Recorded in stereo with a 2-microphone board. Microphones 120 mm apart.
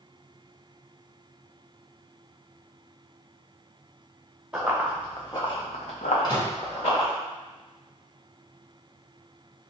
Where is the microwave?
40° left (ahead or behind), 1.0 m.